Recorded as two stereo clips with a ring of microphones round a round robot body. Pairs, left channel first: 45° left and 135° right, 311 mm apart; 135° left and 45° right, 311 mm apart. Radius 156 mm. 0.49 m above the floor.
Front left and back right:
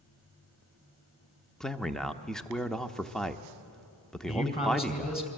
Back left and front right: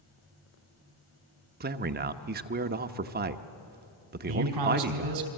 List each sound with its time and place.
1.6 s a man speaking: 40° right, 0.9 m
4.3 s a man speaking: 25° right, 4 m